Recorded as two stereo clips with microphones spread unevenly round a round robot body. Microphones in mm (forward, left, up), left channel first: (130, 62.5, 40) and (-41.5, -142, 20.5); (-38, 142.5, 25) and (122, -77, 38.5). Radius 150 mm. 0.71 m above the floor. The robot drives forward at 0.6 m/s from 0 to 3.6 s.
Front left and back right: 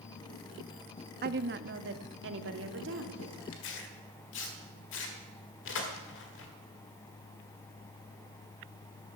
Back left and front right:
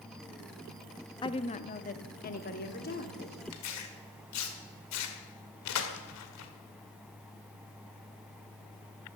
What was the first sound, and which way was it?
A woman speaking, 170° right.